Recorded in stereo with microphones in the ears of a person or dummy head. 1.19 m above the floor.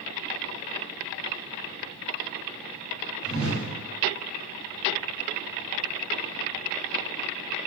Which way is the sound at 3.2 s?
Centre (ahead or behind).